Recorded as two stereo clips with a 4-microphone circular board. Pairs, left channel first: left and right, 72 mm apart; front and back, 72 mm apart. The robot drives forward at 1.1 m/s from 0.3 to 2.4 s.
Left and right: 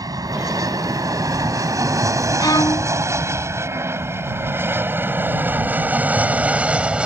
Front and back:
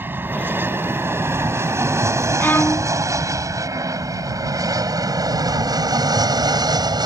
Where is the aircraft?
120° right; by 7.1 s 165° right.